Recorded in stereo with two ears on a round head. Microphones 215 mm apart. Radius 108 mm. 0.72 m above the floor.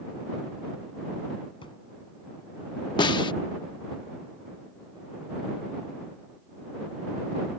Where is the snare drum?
20° left (ahead or behind).